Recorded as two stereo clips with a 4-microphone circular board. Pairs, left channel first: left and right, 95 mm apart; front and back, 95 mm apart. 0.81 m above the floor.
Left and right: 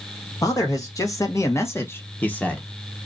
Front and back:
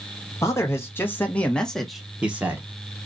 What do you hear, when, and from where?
0.4 s a man speaking: 50° left, 1.6 m; by 2.6 s 155° left, 1.0 m